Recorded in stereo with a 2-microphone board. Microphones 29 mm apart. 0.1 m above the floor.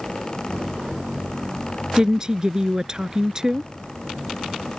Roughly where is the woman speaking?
Right.